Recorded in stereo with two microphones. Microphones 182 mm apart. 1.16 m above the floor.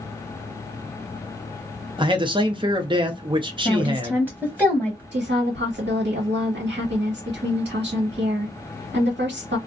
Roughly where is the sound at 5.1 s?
Right.